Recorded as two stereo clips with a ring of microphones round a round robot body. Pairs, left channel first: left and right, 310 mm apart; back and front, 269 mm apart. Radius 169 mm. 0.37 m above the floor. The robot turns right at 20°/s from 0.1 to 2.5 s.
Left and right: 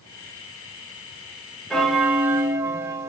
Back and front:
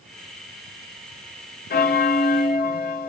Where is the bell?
Straight behind, 0.5 m; by 3.1 s 165° right, 0.5 m.